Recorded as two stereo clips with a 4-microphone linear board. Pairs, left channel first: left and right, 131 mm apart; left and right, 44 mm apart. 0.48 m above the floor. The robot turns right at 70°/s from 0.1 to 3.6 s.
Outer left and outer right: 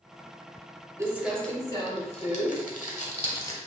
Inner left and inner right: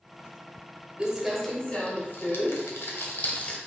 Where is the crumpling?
20° right (ahead or behind), 1.0 m; by 3.6 s 20° left (ahead or behind), 1.0 m.